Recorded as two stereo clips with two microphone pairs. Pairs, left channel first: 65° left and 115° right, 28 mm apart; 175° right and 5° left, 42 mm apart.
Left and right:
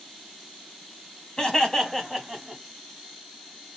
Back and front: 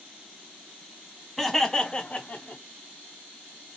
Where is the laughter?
95° left, 1.1 m; by 2.6 s 160° left, 1.4 m.